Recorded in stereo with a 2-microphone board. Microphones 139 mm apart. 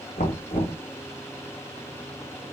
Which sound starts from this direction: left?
Knocking, at 0.2 s.